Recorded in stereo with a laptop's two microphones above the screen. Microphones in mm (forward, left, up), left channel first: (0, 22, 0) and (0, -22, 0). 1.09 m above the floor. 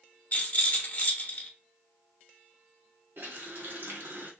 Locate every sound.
0.3 s a rattle: 40° left (ahead or behind), 1.0 m
3.2 s a running tap: 55° right (ahead or behind), 0.9 m